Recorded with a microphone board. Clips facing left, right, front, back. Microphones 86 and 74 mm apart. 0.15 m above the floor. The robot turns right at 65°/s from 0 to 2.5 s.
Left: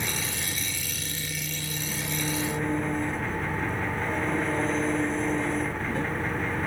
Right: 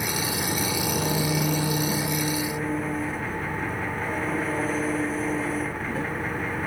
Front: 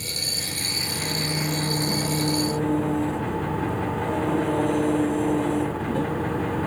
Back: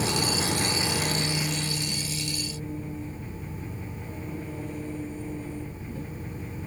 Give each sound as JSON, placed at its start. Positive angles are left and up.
{"t": 0.0, "sound": "an engine running", "azimuth_deg": -165}